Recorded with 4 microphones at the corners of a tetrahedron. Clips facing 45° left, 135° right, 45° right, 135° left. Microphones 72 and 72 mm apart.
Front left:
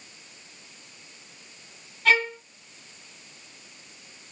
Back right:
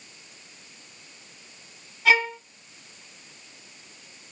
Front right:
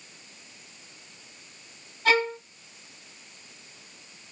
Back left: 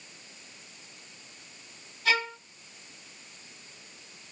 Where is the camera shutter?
No camera shutter in this recording.